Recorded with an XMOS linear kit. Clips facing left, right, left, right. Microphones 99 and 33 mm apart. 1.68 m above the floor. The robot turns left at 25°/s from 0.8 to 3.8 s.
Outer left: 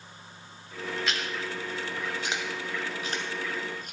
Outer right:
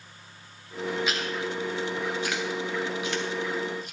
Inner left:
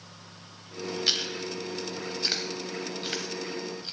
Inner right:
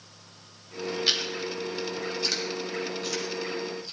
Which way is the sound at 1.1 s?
5° right (ahead or behind).